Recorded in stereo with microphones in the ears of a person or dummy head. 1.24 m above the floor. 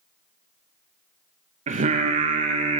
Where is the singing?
40° right (ahead or behind), 0.7 m.